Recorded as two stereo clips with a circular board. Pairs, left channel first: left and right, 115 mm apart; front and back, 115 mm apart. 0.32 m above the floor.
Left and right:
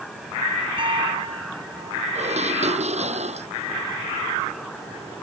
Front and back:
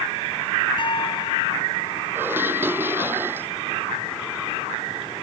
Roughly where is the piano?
Ahead right.